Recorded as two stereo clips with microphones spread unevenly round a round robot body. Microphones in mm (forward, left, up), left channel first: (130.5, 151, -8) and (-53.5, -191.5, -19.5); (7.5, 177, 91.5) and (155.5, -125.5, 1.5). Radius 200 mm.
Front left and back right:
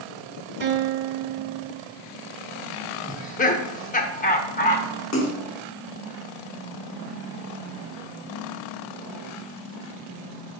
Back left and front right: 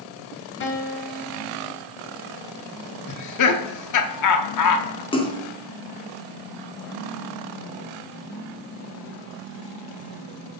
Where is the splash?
30° left, 1.6 m.